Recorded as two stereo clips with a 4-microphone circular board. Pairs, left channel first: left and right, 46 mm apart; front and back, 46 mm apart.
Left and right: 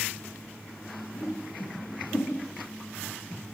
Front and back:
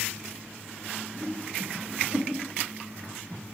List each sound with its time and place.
1.1 s a whoosh: 125° left, 9 m